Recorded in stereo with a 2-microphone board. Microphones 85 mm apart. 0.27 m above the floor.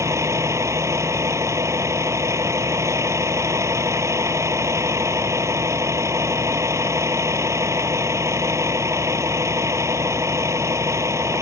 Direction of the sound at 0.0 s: 40° right (ahead or behind).